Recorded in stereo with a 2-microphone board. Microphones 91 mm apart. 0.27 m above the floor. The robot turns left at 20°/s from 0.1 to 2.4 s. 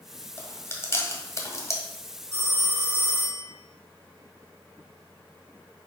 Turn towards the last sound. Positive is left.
turn(degrees=-40)  # may be behind; listen again after turning